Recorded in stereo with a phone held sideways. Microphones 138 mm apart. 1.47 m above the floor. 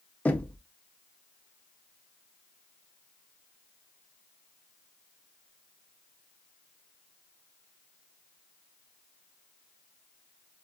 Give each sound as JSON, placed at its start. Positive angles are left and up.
{"t": 0.2, "sound": "knocking", "side_deg": 10, "distance_m": 0.6}